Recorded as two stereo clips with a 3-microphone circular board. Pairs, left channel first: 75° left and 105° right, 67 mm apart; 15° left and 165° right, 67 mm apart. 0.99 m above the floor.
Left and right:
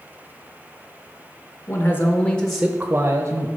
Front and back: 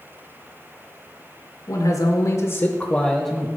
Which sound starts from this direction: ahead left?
A man speaking, at 1.7 s.